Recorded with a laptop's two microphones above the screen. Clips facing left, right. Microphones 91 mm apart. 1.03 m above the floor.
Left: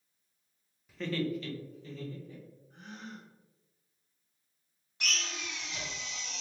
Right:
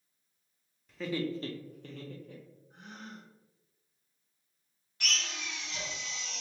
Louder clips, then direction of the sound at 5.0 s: Even; 20° left (ahead or behind).